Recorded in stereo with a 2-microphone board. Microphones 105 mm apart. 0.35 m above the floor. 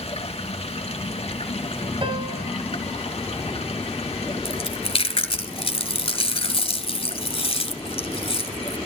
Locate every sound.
0.0 s running water: 75° left (ahead or behind), 2.5 m
2.0 s a piano: 55° right (ahead or behind), 2 m
4.5 s chewing: 65° left (ahead or behind), 2.5 m